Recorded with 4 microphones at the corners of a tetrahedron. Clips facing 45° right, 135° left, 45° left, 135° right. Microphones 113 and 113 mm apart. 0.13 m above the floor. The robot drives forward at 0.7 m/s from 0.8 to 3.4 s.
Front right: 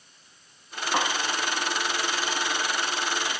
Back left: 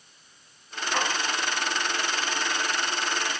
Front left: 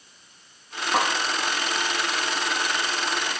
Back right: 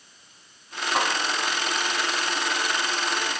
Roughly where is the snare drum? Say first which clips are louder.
Front right 2 dB, front left 2 dB; ahead.